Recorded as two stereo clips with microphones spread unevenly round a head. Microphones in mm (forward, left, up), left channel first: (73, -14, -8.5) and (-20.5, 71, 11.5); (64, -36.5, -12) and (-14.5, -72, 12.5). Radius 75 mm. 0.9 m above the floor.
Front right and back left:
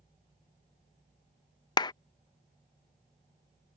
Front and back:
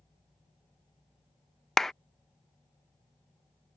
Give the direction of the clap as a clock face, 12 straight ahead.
1 o'clock.